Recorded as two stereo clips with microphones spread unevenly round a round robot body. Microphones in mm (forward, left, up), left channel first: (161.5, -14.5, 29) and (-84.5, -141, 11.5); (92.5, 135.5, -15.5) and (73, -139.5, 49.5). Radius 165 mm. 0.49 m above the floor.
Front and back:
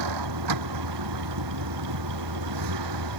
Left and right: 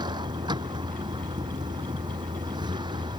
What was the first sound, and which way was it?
A vehicle, 170° right.